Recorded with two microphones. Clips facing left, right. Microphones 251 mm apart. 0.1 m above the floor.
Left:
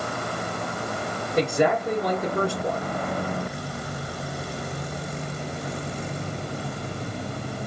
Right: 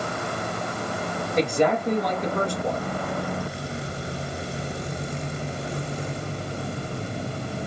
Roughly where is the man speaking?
Centre.